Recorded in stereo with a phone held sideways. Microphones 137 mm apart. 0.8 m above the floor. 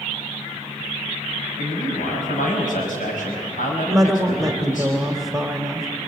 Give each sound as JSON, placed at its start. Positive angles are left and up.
{"t": 1.6, "sound": "a man speaking", "side_deg": 75, "distance_m": 5.0}
{"t": 3.9, "sound": "a woman speaking", "side_deg": 0, "distance_m": 1.9}